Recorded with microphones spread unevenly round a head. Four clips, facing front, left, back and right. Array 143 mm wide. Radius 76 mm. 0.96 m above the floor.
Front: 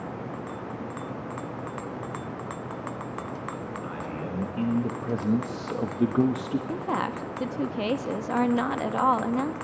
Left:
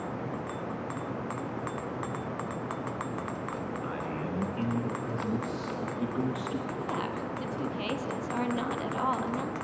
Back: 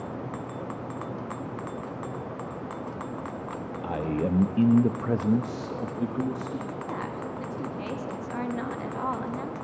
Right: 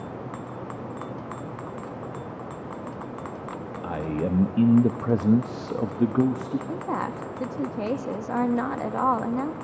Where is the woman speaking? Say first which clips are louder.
Right 4 dB, front 5 dB; 45° right, 1.7 m.